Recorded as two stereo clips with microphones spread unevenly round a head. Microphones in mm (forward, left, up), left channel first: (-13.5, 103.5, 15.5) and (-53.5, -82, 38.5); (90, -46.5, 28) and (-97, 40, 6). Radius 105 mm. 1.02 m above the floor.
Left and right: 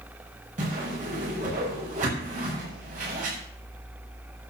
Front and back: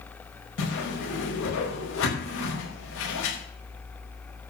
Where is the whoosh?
50° right, 5.5 m.